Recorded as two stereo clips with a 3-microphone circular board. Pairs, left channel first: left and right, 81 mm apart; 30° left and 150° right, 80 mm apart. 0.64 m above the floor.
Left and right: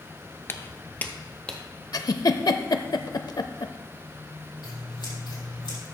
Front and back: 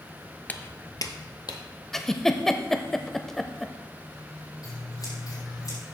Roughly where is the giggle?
Behind left.